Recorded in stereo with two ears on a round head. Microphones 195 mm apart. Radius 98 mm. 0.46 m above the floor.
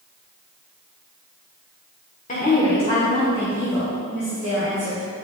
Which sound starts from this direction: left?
A woman speaking, at 2.3 s.